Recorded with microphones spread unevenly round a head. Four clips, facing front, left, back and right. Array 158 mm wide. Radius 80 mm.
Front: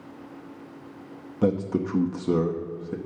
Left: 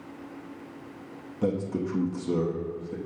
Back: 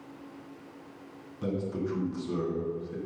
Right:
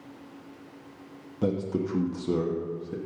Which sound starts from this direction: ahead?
A man speaking, at 1.4 s.